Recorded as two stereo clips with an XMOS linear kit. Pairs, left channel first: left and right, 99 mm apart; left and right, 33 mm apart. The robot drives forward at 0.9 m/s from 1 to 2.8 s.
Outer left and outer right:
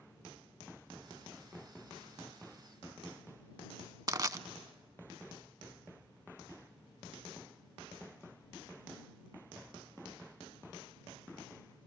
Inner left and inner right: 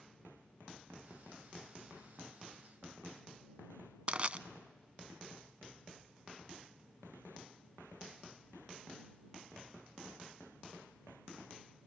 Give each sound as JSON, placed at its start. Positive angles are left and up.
{"t": 4.1, "sound": "crushing", "side_deg": -35, "distance_m": 0.5}